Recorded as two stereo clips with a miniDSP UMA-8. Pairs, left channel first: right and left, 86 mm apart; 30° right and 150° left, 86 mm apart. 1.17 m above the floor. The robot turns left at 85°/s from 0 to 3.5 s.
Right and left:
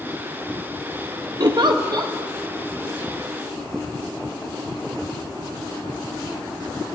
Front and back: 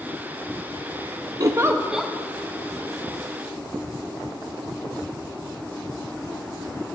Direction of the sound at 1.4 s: 115° left.